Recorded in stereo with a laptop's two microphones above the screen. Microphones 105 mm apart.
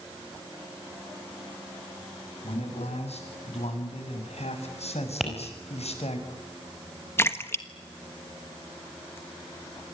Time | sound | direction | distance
2.4 | a man speaking | 85° left | 8 m
5.2 | tapping | centre (ahead or behind) | 5 m
7.2 | a splash | 20° left (ahead or behind) | 1.3 m